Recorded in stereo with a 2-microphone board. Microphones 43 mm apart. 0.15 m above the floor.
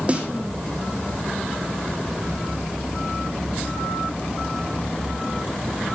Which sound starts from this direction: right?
A snare drum, at 0.1 s.